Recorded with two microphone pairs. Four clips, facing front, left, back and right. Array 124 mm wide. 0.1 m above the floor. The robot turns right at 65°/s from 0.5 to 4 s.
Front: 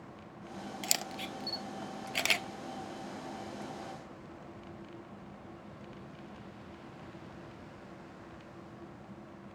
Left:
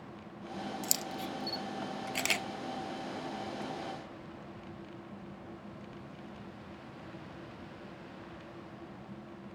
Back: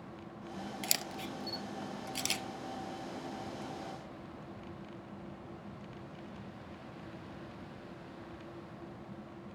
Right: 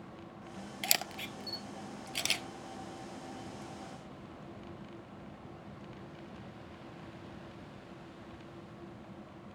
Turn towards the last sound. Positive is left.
turn(degrees=130)